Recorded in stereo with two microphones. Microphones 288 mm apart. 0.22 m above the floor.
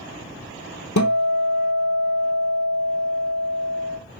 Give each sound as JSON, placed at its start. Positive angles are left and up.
{"t": 1.0, "sound": "a guitar", "side_deg": 85, "distance_m": 1.0}